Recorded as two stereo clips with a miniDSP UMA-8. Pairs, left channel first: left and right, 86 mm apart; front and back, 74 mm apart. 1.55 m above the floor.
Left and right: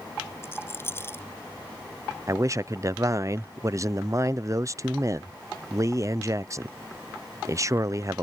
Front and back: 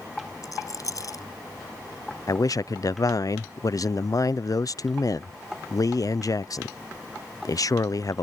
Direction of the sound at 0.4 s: 30° left.